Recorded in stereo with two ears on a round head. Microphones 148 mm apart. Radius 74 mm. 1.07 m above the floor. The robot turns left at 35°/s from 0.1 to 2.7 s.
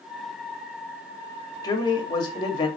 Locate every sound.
1.6 s a man speaking: 25° left (ahead or behind), 0.8 m